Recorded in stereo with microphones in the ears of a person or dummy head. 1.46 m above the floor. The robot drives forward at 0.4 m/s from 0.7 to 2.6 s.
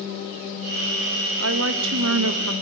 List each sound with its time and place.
1.4 s a woman speaking: 75° right (ahead or behind), 2 m; by 2.5 s 85° right, 2 m